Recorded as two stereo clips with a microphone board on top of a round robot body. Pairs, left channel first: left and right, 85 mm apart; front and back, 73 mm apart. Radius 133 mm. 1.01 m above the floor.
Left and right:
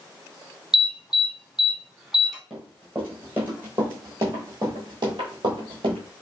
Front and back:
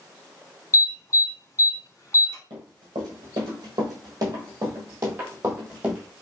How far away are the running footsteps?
About 1.9 m.